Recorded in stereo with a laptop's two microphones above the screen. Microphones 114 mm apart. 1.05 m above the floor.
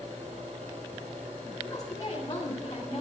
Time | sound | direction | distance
0.0 | a fan | 70° right (ahead or behind) | 4 m
1.6 | a woman speaking | 25° left (ahead or behind) | 6.5 m